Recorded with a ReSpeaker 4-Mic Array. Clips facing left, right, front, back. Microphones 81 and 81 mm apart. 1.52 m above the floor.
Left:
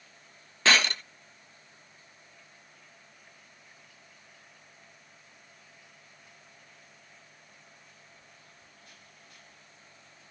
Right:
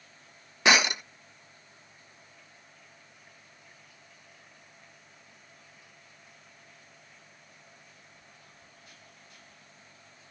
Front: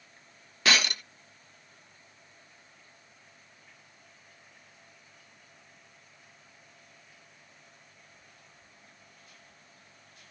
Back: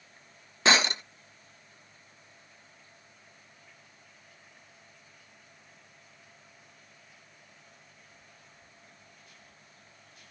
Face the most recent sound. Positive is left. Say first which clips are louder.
# right 2 dB, back 3 dB
turn(degrees=-150)